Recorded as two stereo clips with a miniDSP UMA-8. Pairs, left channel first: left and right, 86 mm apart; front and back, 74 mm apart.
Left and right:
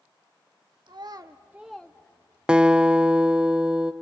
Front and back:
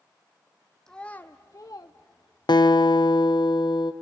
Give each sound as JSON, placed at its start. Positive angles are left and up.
{"t": 0.9, "sound": "a child speaking", "azimuth_deg": -80, "distance_m": 1.0}
{"t": 2.5, "sound": "a guitar", "azimuth_deg": -10, "distance_m": 0.7}